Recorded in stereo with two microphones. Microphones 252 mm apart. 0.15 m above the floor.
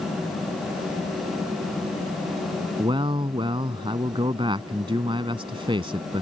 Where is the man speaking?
20° right (ahead or behind).